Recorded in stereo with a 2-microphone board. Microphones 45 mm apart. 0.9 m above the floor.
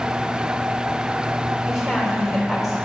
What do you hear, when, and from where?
1.7 s a woman speaking: 5° right (ahead or behind), 3.5 m